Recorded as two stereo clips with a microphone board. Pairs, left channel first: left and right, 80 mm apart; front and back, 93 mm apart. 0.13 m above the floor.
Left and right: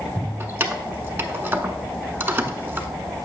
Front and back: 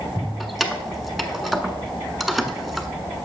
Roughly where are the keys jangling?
Right.